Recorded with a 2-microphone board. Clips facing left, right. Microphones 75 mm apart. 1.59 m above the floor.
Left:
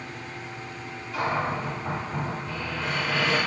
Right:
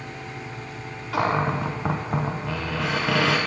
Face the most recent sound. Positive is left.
turn(degrees=-85)